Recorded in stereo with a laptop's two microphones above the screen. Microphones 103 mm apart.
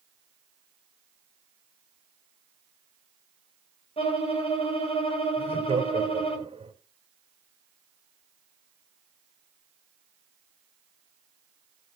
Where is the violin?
75° left (ahead or behind), 3.5 m.